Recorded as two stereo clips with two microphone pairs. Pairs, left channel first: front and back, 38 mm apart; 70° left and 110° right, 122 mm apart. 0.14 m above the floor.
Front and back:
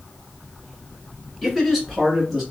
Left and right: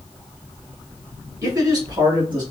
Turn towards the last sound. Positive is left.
turn(degrees=-90)